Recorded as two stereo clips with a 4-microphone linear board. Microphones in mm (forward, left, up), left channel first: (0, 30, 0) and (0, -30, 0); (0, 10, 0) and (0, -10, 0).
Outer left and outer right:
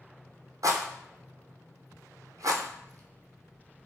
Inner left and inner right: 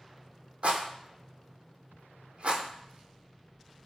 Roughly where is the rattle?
Right.